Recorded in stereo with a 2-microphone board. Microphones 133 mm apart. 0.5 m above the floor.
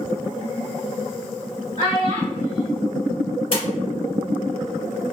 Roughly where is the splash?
Left.